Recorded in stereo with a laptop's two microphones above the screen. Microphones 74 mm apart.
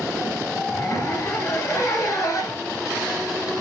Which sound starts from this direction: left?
A zipper, at 0.7 s.